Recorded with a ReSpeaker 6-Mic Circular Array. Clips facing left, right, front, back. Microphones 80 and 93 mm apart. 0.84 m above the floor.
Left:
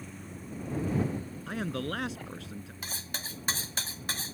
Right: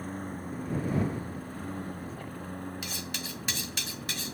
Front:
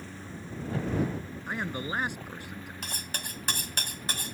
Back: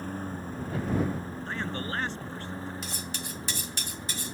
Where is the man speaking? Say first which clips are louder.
Left 4 dB, front 1 dB; 80° left.